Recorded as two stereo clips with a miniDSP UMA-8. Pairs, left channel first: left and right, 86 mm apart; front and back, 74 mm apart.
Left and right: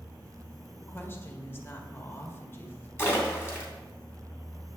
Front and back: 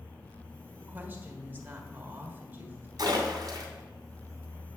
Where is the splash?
150° left, 2.5 m.